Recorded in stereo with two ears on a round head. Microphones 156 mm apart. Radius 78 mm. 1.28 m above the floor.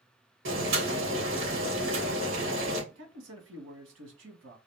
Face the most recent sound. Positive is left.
turn(degrees=-80)